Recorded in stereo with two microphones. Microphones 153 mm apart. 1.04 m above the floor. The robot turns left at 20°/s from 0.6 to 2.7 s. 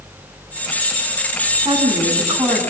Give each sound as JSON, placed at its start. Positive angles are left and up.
{"t": 1.6, "sound": "a woman speaking", "side_deg": -30, "distance_m": 8.5}